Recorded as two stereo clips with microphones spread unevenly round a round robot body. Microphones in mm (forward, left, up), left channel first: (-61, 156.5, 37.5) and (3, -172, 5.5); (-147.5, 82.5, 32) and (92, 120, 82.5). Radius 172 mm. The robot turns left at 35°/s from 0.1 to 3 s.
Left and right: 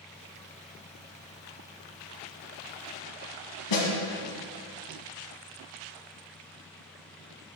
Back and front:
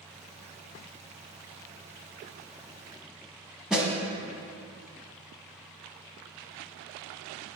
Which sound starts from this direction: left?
A snare drum, at 3.7 s.